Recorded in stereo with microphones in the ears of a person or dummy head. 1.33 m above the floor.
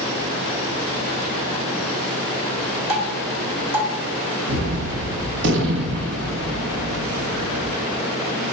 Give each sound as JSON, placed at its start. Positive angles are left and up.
{"t": 2.9, "sound": "dripping", "side_deg": -85, "distance_m": 5.0}
{"t": 4.5, "sound": "a gunshot", "side_deg": -70, "distance_m": 1.1}